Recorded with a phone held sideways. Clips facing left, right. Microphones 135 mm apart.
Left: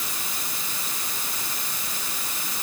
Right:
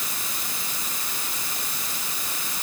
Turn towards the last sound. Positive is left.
No sound to turn to.